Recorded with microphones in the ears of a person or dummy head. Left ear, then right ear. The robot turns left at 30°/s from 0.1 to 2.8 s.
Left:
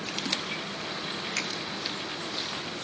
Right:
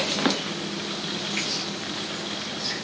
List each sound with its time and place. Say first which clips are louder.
1.4 s a finger snap: right 3 dB; 85° left, 1.5 m; by 1.5 s 80° left, 1.5 m